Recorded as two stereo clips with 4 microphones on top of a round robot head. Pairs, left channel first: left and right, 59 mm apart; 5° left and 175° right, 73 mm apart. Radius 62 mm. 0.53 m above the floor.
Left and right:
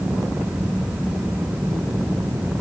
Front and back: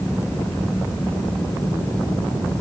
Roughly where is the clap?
No clap in this recording.